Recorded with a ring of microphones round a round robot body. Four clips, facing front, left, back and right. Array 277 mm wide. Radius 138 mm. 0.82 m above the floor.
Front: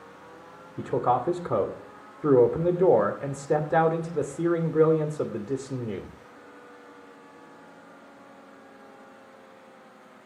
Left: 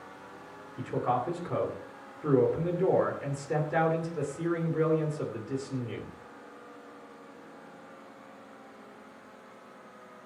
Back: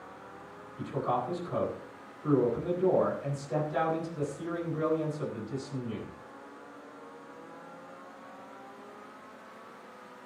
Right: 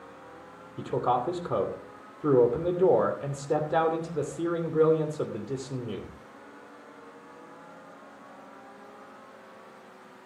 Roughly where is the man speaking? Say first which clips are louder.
Right 3 dB, front 7 dB; ahead.